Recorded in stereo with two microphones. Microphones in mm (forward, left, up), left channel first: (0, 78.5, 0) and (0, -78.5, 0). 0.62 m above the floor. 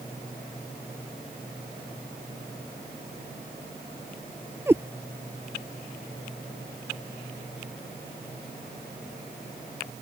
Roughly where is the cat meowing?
Centre.